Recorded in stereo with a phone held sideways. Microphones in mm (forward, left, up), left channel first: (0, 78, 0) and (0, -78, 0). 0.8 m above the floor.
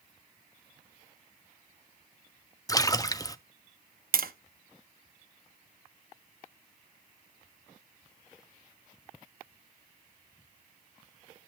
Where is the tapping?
70° right (ahead or behind), 0.7 m.